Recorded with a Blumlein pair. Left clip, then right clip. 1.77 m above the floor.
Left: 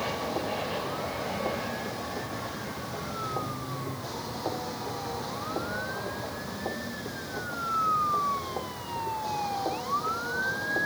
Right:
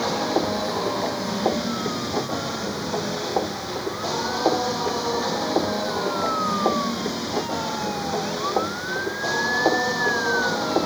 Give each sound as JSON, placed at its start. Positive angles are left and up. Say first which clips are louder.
{"t": 0.0, "sound": "a machine running", "louder": "right 8 dB", "azimuth_deg": -30}